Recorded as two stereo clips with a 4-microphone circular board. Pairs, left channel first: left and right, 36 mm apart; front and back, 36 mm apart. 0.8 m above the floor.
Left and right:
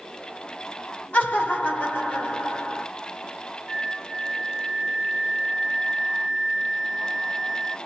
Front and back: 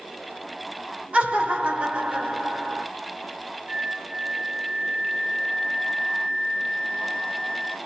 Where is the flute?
170° left, 1.5 m.